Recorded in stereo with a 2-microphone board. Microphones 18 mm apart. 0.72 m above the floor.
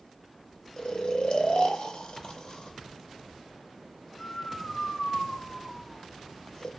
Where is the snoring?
50° left (ahead or behind), 1.0 m.